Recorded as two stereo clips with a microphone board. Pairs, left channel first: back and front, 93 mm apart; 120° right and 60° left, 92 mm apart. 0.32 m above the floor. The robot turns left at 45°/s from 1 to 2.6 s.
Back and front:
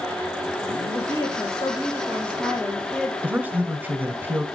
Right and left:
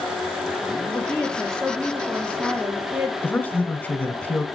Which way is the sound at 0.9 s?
Straight behind.